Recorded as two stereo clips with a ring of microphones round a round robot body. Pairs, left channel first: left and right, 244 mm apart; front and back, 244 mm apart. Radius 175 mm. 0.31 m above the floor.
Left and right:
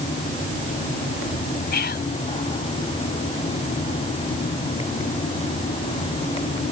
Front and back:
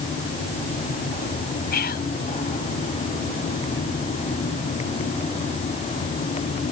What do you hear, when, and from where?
1.7 s whispering: 45° left